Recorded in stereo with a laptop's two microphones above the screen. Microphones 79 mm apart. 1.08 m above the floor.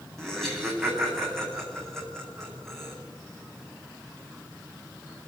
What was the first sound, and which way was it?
Laughter, 5° left (ahead or behind).